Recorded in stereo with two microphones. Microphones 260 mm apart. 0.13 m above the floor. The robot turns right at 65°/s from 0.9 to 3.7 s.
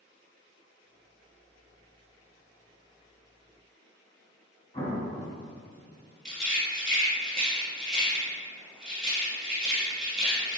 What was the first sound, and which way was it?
An explosion, 25° left (ahead or behind).